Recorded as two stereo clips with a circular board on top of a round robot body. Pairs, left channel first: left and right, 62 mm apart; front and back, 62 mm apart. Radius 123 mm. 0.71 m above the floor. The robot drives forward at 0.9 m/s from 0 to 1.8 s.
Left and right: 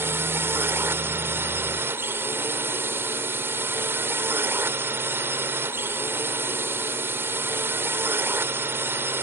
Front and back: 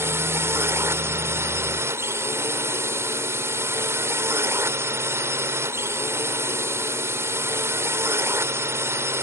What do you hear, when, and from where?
0.0 s a drone: 140° right